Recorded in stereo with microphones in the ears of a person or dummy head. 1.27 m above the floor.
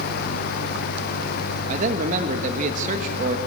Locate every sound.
1.7 s a man speaking: 40° right (ahead or behind), 1.5 m